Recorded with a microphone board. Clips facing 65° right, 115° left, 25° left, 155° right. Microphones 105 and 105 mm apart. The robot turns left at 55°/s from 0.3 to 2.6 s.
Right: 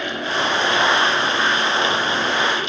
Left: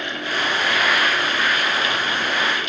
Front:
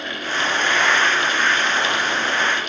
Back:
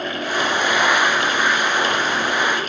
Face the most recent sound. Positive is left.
No sound to turn to.